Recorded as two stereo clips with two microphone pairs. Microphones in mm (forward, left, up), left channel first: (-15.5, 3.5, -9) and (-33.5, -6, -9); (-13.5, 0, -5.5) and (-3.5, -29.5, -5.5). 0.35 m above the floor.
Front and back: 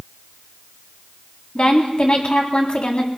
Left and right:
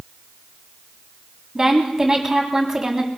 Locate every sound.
1.6 s a woman speaking: straight ahead, 2.5 m